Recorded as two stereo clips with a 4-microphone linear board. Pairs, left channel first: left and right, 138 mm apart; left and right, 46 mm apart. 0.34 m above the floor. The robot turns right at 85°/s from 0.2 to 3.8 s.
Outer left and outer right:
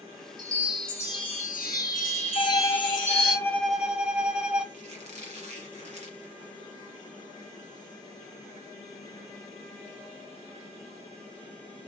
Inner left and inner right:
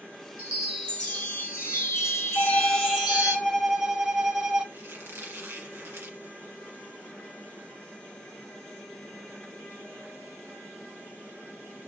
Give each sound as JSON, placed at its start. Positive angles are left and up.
{"t": 0.4, "sound": "a chime", "azimuth_deg": -35, "distance_m": 1.8}
{"t": 2.4, "sound": "a violin", "azimuth_deg": 65, "distance_m": 0.8}
{"t": 4.7, "sound": "a squeak", "side_deg": -55, "distance_m": 1.5}